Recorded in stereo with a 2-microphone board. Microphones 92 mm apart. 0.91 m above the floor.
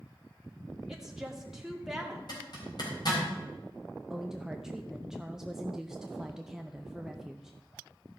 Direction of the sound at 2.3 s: 50° left (ahead or behind).